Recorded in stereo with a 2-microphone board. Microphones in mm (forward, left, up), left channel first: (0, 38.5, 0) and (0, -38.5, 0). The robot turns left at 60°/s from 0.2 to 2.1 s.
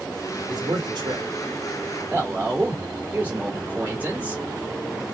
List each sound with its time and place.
0.5 s a man speaking: 60° right, 2.5 m; by 4.4 s 160° right, 2.5 m